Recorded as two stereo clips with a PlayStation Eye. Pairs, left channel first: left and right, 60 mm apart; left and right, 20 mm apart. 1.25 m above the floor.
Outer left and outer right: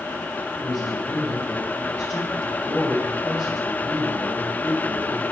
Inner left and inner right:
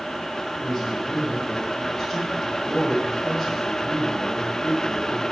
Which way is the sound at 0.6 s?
15° right (ahead or behind).